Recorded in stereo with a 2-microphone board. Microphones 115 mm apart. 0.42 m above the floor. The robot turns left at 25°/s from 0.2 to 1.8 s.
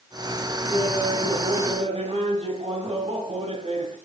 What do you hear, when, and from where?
0.7 s laughter: 50° right (ahead or behind), 3 m; by 4.0 s 65° right (ahead or behind), 3 m